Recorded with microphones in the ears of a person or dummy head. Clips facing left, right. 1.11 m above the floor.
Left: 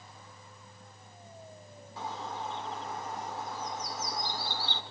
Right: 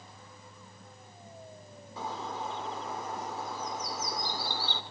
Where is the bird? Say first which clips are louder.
Right 1 dB; 80° right, 1.7 m.